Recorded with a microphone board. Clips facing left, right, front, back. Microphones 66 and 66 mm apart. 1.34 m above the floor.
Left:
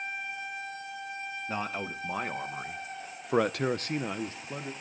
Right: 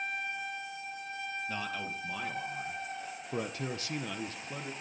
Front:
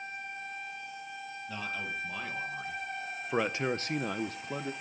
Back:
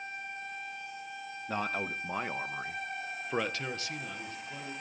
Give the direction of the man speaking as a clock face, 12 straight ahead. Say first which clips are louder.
Left 7 dB, back 4 dB; 7 o'clock.